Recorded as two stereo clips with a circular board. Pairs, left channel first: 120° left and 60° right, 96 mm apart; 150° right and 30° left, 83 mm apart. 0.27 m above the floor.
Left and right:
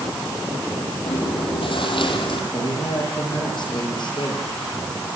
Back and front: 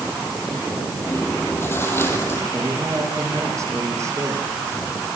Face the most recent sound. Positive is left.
turn(degrees=80)